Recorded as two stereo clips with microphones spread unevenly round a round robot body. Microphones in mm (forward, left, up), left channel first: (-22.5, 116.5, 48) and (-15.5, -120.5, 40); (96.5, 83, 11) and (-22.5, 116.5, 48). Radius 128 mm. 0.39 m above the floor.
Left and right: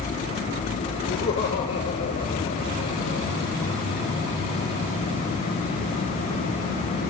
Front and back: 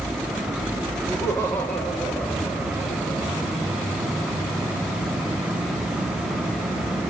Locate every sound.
1.1 s laughter: 50° left, 9.5 m; by 3.3 s 55° left, 8.5 m